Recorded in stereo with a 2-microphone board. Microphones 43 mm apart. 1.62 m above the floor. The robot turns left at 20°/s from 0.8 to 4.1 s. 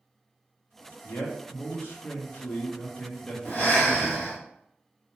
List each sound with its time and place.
1.0 s a man speaking: 70° left, 0.9 m; by 4.3 s 10° left, 0.9 m
3.5 s breathing: 40° left (ahead or behind), 1.1 m; by 4.4 s 25° left (ahead or behind), 1.1 m